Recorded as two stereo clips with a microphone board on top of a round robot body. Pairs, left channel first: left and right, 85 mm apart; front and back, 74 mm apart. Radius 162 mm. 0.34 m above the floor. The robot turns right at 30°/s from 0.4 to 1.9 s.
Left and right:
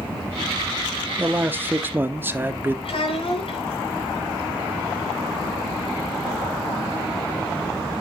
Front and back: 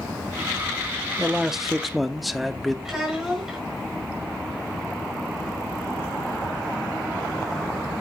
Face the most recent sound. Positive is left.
turn(degrees=95)